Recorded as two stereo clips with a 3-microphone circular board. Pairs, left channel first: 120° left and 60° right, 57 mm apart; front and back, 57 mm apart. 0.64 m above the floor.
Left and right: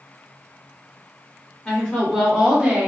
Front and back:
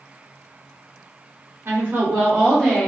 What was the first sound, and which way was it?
A woman speaking, 170° left.